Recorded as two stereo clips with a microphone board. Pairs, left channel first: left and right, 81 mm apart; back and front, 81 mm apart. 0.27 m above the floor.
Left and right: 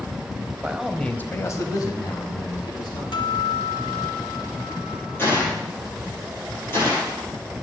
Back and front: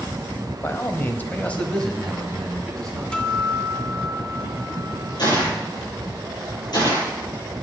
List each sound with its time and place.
0.6 s a man speaking: 150° right, 1.1 m; by 3.0 s 90° left, 3 m
3.1 s a guitar: 100° left, 1.4 m
5.2 s a gunshot: 150° left, 8.5 m